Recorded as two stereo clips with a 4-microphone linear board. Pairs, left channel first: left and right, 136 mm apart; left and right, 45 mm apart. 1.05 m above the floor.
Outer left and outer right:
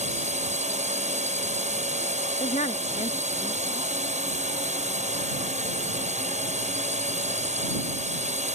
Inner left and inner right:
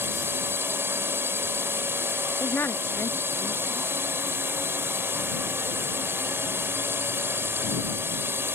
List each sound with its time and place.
0.0 s a drone: 55° right (ahead or behind)
2.4 s a woman speaking: 55° left (ahead or behind)